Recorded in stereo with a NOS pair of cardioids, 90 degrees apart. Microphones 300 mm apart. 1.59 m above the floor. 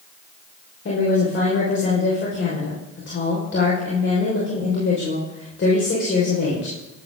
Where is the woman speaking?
40° left, 6 m.